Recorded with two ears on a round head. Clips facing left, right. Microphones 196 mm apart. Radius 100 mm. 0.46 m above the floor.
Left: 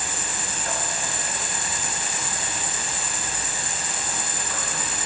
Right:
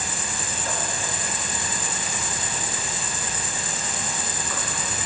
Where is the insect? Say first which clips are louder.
Right 1 dB; 75° right (ahead or behind), 0.8 m.